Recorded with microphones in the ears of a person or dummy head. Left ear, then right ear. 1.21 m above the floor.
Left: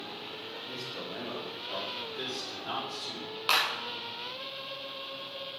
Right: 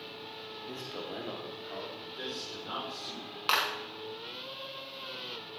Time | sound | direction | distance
0.7 | a man speaking | 40° right (ahead or behind) | 1.7 m
2.0 | a man speaking | 20° left (ahead or behind) | 5 m
3.5 | a clap | 15° right (ahead or behind) | 1.9 m